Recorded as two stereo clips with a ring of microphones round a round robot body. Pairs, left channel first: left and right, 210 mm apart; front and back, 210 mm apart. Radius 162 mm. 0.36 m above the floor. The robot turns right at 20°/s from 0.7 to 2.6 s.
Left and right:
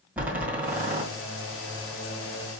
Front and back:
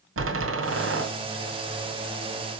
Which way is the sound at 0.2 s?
175° right.